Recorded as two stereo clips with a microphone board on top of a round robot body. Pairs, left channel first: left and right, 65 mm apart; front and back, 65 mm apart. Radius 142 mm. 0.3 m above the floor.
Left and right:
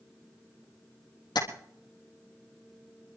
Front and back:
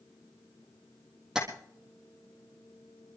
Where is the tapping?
95° left, 3.5 m.